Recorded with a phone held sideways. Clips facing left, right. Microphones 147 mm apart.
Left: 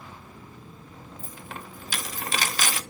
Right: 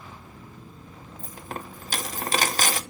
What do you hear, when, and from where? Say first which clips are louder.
1.2 s a dropped coin: right 5 dB; 40° right (ahead or behind), 0.8 m